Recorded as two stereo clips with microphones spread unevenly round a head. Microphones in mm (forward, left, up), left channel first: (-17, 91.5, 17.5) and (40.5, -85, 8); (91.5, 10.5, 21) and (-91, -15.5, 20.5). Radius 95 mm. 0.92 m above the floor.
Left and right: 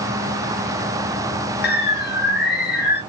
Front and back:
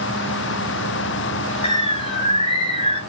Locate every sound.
1.6 s a bird: 70° left, 0.8 m